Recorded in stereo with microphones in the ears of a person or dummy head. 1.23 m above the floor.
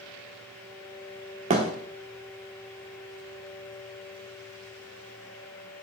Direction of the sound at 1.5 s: 30° right (ahead or behind).